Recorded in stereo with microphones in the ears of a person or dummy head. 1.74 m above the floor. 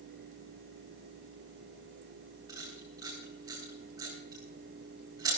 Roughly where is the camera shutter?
Centre.